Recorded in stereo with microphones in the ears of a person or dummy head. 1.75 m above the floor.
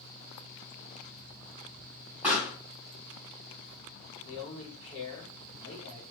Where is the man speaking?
35° left (ahead or behind), 1.6 m.